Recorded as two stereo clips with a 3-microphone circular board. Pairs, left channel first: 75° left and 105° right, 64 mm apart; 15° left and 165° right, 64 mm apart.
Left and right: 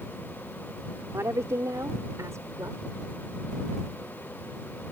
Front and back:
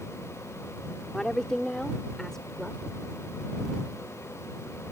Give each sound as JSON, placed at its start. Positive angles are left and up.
{"t": 1.1, "sound": "a woman speaking", "azimuth_deg": -65}